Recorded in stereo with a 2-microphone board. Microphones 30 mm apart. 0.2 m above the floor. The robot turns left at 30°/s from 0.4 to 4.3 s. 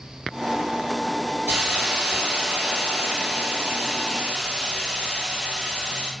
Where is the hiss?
65° right, 1.6 m; by 6.1 s 150° right, 1.6 m.